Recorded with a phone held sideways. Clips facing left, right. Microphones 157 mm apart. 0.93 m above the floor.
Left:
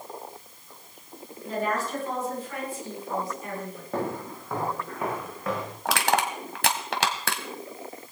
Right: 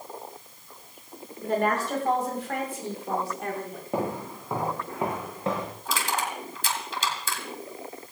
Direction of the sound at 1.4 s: 70° right (ahead or behind).